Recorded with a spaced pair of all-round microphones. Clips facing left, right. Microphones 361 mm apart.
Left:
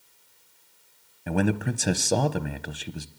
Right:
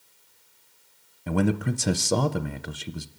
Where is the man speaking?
5° right (ahead or behind), 0.6 m.